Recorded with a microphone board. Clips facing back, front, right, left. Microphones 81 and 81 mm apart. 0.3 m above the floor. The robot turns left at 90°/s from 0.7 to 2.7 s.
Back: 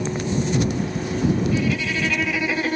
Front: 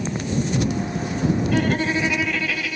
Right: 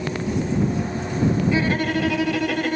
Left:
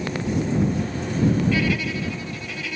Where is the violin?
25° right; by 2.8 s 130° right.